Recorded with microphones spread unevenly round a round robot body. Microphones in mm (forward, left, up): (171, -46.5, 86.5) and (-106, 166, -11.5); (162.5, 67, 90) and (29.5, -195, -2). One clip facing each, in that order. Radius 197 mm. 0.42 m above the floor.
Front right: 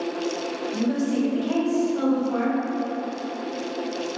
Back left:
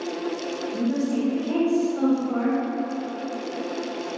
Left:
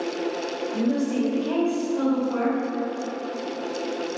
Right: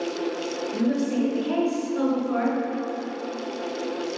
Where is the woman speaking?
80° right, 2.0 m.